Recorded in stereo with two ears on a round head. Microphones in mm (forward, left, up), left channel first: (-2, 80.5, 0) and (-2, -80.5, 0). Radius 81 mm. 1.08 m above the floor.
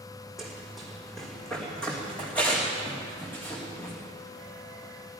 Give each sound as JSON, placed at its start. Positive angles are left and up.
{"t": 0.4, "sound": "running footsteps", "side_deg": 0, "distance_m": 3.5}